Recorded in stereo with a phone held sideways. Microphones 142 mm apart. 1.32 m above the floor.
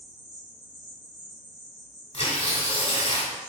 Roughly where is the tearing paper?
Left.